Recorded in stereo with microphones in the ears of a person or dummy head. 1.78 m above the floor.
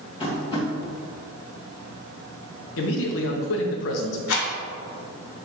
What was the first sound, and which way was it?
Tapping, 25° left (ahead or behind).